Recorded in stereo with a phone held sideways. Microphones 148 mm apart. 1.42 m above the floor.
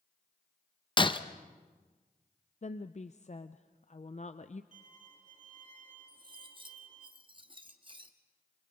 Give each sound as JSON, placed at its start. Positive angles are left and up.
{"t": 1.0, "sound": "breaking glass", "side_deg": 35, "distance_m": 0.7}
{"t": 2.6, "sound": "a woman speaking", "side_deg": 50, "distance_m": 0.5}
{"t": 4.7, "sound": "a violin", "side_deg": -60, "distance_m": 3.0}
{"t": 6.1, "sound": "cutlery clinking", "side_deg": -35, "distance_m": 1.1}